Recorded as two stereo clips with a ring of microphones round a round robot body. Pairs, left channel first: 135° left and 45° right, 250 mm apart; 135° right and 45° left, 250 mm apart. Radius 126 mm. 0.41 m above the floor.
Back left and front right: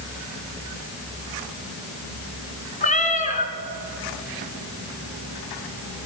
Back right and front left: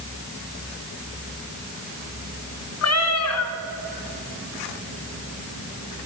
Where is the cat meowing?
165° right, 1.3 m.